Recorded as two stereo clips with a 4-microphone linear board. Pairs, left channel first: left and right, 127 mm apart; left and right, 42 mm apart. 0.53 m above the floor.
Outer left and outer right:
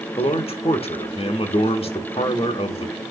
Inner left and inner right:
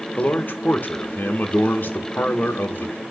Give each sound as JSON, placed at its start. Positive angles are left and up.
{"t": 0.2, "sound": "a man speaking", "side_deg": 50, "distance_m": 1.0}